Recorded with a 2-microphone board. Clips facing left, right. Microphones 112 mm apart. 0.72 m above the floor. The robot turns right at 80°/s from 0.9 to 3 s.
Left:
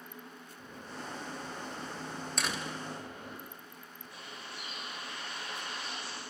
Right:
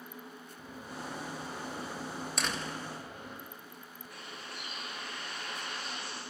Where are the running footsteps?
45° right (ahead or behind), 6 m; by 3.4 s 60° left (ahead or behind), 7.5 m.